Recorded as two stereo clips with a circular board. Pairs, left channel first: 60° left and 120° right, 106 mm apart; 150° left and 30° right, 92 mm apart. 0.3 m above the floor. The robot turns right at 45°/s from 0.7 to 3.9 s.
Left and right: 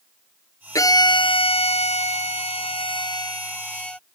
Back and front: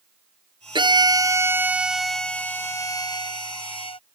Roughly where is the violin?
Ahead.